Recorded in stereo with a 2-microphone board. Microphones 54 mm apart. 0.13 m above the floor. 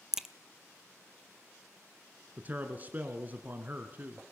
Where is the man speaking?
30° right (ahead or behind), 1.4 m.